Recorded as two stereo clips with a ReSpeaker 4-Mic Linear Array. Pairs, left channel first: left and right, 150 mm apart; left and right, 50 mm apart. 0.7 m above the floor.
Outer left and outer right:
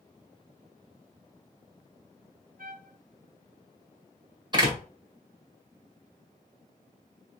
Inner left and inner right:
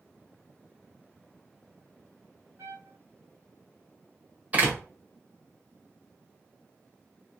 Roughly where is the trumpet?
Right.